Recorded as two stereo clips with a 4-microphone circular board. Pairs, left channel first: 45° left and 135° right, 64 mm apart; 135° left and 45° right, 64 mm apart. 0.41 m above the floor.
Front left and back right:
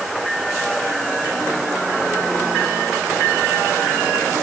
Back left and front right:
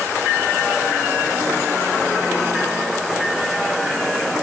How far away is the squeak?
No squeak in this recording.